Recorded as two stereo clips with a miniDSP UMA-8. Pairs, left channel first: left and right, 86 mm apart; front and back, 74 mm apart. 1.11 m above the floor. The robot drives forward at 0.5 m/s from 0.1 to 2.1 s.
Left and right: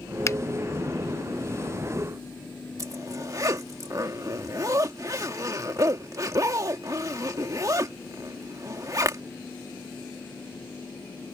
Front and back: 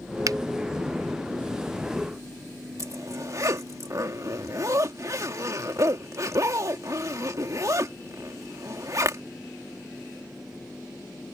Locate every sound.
0.3 s a finger snap: 145° left; by 0.4 s 150° left
2.8 s a zipper: 140° right